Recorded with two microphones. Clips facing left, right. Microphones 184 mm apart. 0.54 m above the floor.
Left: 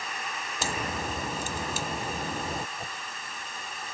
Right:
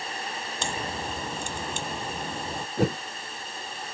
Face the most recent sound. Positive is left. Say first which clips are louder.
# right 16 dB
turn(degrees=-80)